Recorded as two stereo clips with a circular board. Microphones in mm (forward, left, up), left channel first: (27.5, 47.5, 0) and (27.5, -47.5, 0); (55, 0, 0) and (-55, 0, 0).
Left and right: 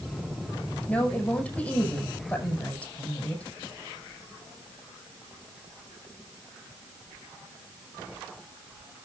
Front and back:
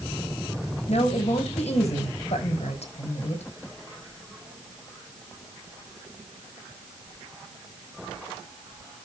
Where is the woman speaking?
15° left, 8.5 m.